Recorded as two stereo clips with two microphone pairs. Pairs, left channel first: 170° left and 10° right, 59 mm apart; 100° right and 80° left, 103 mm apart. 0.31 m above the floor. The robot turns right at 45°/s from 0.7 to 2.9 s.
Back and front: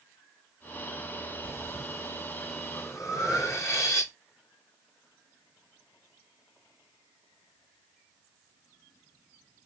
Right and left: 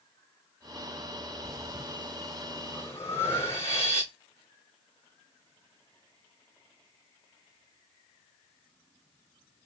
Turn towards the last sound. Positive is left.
turn(degrees=-160)